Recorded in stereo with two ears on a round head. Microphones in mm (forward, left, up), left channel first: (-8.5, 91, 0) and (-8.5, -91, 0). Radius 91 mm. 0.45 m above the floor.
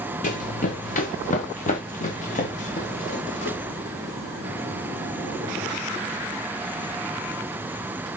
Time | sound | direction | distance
0.2 | running footsteps | 40° left (ahead or behind) | 2 m